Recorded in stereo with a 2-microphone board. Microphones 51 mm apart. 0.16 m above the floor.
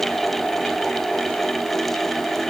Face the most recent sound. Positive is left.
No sound to turn to.